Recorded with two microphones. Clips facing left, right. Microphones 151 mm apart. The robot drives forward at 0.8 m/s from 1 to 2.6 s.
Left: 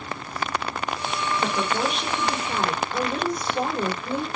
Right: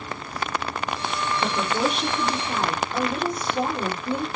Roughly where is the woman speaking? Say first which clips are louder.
Right 2 dB; centre.